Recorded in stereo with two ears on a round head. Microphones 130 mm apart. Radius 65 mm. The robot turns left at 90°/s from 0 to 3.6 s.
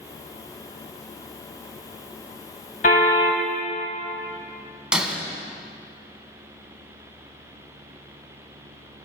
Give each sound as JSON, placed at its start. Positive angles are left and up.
{"t": 2.8, "sound": "a car horn", "azimuth_deg": 120, "distance_m": 3.0}
{"t": 4.9, "sound": "breaking glass", "side_deg": -5, "distance_m": 1.9}